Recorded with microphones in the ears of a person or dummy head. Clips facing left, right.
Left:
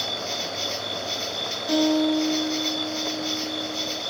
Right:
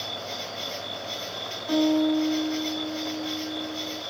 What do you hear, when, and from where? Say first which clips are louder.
0.0 s an insect: left 4 dB; 25° left (ahead or behind), 7 m
1.7 s a guitar: left 1 dB; 30° left (ahead or behind), 7 m